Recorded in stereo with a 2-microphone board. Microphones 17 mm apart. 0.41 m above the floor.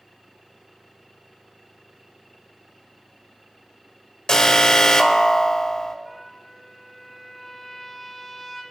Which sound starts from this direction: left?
An alarm, at 4.3 s.